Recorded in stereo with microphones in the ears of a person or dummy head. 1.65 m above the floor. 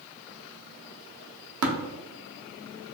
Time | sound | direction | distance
1.6 | tapping | 80° right | 0.7 m